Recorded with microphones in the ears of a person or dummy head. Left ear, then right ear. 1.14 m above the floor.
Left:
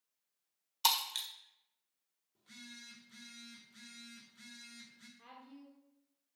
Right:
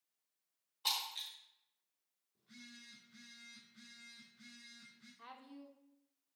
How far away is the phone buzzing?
About 1.9 m.